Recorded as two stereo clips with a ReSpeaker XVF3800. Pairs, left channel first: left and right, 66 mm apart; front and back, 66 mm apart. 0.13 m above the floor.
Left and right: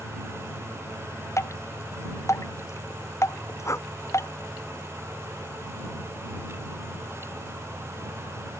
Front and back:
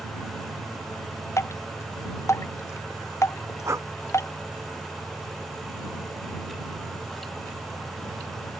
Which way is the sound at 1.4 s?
45° left.